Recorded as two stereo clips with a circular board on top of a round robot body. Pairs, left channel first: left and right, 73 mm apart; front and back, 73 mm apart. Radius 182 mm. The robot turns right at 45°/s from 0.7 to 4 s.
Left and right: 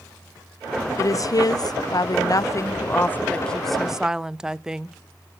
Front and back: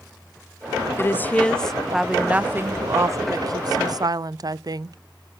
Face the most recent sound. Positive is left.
turn(degrees=-170)